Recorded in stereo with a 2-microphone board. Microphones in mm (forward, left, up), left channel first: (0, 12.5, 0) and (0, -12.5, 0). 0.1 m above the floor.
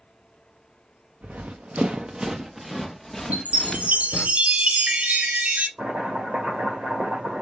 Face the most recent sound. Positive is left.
turn(degrees=-65)  # may be behind; listen again after turning